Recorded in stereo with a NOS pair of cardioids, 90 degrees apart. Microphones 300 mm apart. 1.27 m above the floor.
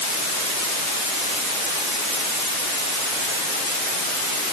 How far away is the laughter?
No laughter in this recording.